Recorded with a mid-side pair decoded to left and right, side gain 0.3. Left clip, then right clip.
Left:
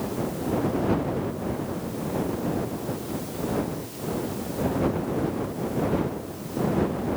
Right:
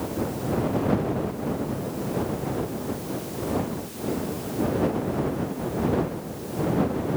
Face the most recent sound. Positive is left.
No sound to turn to.